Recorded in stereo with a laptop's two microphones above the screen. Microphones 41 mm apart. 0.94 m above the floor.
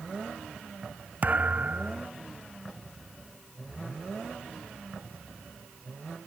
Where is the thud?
35° right (ahead or behind).